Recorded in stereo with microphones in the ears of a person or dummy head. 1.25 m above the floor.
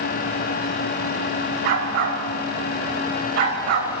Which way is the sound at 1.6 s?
60° right (ahead or behind).